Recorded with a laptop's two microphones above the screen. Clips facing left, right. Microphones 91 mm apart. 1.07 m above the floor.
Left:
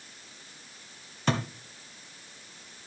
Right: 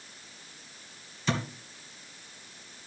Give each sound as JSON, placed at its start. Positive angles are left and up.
{"t": 1.3, "sound": "a thud", "side_deg": 55, "distance_m": 1.8}